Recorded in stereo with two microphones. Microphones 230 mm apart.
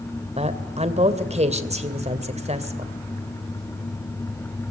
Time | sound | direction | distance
0.4 | a woman speaking | 30° right (ahead or behind) | 2.5 m